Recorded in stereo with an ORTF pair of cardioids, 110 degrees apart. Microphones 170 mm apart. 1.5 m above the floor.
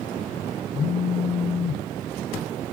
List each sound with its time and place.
0.7 s a phone buzzing: 35° left, 0.6 m